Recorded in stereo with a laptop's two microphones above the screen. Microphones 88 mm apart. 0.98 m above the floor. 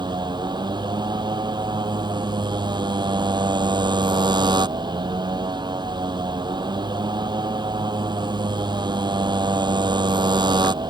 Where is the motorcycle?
55° right (ahead or behind).